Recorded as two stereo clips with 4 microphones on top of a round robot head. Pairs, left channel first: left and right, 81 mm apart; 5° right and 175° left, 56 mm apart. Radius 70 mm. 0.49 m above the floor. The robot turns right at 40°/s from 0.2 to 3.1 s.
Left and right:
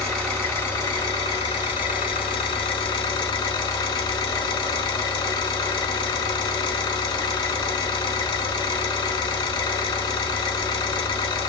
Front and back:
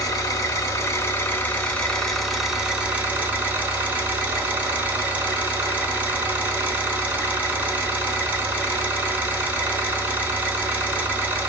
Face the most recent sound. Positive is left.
turn(degrees=115)